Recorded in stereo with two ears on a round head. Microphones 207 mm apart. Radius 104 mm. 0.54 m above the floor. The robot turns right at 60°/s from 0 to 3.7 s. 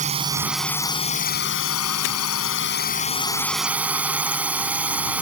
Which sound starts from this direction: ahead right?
A drone, at 0.0 s.